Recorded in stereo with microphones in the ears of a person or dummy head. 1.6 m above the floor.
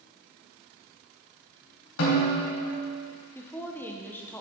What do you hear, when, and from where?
2.0 s a snare drum: 70° left (ahead or behind), 3 m
3.4 s a woman speaking: 10° left (ahead or behind), 0.9 m